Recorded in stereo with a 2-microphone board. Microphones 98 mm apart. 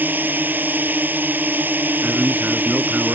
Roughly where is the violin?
No violin in this recording.